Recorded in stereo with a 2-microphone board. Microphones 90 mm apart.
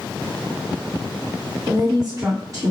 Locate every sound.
1.7 s a woman speaking: 40° right (ahead or behind), 1.2 m